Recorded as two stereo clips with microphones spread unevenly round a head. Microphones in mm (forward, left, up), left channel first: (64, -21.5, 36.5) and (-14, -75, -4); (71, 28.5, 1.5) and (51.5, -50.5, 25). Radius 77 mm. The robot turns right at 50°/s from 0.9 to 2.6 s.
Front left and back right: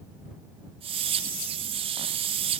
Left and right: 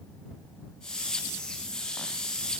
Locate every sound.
Only background noise.